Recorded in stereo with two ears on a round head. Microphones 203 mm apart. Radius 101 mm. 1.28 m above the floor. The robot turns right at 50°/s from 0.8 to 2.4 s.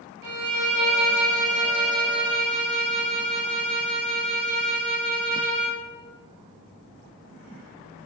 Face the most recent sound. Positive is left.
turn(degrees=-30)